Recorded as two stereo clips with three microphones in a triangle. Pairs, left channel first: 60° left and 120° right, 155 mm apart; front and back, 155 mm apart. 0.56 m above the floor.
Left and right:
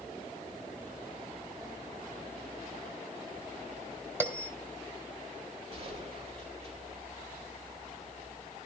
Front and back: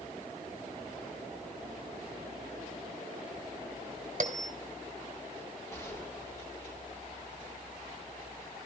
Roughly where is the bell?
Behind.